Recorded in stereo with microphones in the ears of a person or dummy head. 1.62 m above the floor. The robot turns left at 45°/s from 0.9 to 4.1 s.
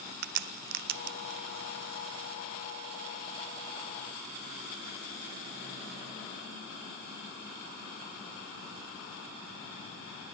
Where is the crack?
55° right (ahead or behind), 0.8 m; by 1.4 s 35° right (ahead or behind), 0.8 m.